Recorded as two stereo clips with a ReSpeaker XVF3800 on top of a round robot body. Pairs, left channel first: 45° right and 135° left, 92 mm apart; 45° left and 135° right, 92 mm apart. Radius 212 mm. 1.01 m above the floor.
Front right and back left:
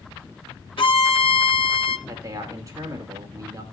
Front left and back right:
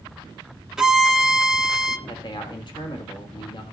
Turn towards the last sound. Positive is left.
turn(degrees=80)